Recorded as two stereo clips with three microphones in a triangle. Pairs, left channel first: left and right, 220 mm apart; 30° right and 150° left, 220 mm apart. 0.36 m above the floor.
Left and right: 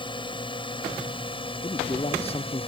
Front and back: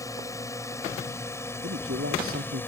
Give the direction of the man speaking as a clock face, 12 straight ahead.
7 o'clock.